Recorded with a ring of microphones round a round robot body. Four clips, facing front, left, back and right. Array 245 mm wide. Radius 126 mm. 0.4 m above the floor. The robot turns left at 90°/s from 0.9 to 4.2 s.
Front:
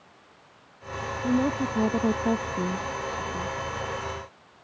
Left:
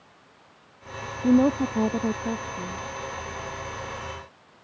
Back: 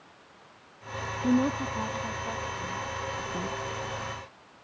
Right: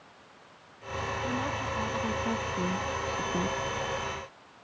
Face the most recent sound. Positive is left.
turn(degrees=-165)